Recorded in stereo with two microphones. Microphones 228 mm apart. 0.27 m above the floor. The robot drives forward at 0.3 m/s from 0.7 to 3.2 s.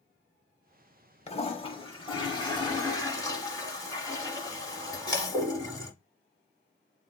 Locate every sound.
1.3 s a toilet flushing: 25° left (ahead or behind), 0.6 m; by 5.9 s 15° left (ahead or behind), 1.0 m